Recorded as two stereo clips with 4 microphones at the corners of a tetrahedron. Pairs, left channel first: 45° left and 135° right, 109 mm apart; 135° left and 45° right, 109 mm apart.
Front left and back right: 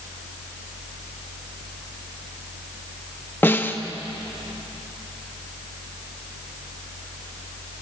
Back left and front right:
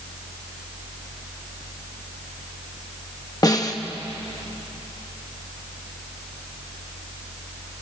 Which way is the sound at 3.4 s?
105° left.